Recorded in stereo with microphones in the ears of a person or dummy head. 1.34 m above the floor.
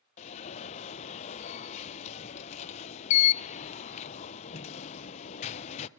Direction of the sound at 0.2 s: 40° left (ahead or behind).